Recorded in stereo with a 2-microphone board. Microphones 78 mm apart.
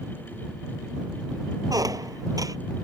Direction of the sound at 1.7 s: 50° right (ahead or behind).